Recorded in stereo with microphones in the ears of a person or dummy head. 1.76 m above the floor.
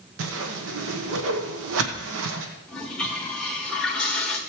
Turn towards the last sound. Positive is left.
turn(degrees=5)  # may be behind; listen again after turning